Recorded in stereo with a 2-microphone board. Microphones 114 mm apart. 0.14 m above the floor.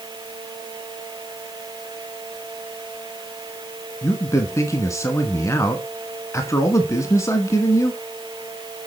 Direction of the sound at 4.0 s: 25° left (ahead or behind).